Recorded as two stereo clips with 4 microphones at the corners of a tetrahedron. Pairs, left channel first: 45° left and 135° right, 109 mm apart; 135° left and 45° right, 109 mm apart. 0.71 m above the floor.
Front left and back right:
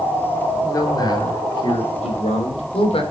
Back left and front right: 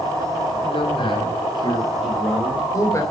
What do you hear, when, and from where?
0.6 s a man speaking: 100° left, 3 m; by 3.0 s 75° left, 3 m
2.0 s a man speaking: 40° left, 4 m